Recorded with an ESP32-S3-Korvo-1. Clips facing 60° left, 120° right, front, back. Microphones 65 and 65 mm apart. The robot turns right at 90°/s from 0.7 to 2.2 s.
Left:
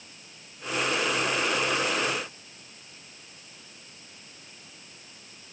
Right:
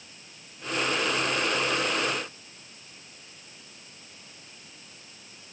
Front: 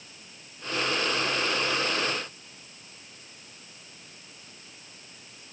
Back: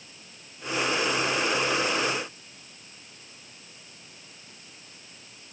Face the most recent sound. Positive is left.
No sound to turn to.